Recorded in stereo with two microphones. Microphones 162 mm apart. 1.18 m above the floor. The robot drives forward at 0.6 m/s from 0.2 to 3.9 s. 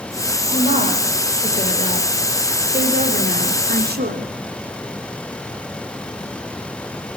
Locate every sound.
0.5 s a woman speaking: 40° right (ahead or behind), 4 m; by 4.3 s 70° right (ahead or behind), 3 m